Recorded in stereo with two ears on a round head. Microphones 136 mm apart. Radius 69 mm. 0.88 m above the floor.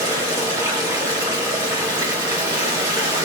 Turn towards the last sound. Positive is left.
turn(degrees=-25)  # may be behind; listen again after turning